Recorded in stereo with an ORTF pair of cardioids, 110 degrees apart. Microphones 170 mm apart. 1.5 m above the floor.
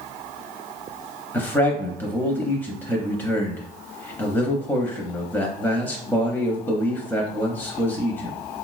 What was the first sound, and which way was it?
A man speaking, 10° left.